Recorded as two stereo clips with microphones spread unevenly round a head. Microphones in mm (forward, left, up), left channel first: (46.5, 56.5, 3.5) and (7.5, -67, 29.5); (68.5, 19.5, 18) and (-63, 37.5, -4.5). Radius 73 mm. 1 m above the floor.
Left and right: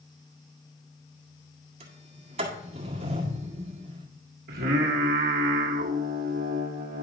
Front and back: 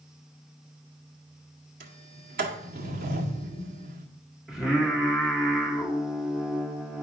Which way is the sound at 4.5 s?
105° right.